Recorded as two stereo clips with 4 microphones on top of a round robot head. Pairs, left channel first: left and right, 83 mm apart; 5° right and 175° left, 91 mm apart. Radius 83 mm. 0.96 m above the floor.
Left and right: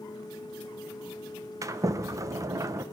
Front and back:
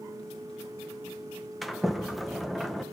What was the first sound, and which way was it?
A sliding door, 95° right.